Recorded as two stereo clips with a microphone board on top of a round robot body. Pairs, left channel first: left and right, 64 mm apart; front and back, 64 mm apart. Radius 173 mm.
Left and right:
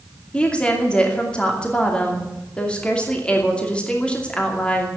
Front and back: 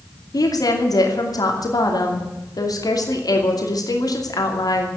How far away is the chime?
No chime in this recording.